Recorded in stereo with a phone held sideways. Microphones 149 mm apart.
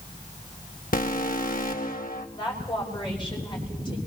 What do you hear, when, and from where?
0.9 s an alarm: 70° left (ahead or behind), 1.6 m
2.4 s a woman speaking: 30° left (ahead or behind), 6 m